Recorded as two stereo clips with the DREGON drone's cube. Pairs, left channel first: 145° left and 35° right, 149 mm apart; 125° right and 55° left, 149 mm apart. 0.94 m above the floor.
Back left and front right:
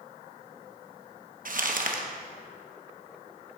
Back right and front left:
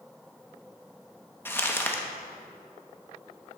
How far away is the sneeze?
I don't hear a sneeze.